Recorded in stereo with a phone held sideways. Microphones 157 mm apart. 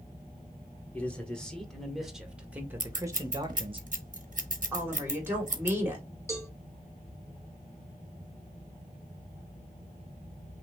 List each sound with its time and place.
0.9 s a man speaking: 10° left (ahead or behind), 1.9 m; by 3.8 s 35° right (ahead or behind), 1.0 m
2.8 s scissors: 55° right (ahead or behind), 1.0 m
4.7 s a woman speaking: 15° right (ahead or behind), 2.5 m
6.3 s a cowbell: 20° left (ahead or behind), 1.5 m